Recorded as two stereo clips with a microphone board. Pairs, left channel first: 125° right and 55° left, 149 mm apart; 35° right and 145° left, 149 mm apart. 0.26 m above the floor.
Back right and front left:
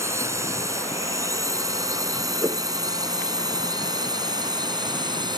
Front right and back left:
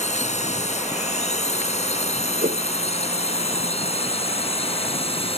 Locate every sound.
0.0 s a drone: 10° right; by 5.4 s straight ahead
2.4 s a whoosh: 125° left